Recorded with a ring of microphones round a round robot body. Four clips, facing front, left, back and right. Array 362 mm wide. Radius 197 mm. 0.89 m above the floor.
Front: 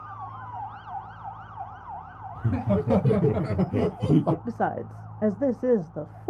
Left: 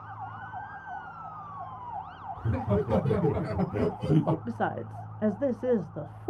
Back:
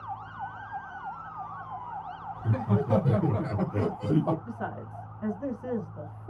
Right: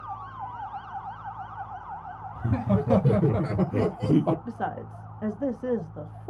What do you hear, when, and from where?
2.4 s laughter: 45° right, 1.4 m; by 4.3 s 35° right, 0.6 m
4.5 s a woman speaking: 10° left, 0.6 m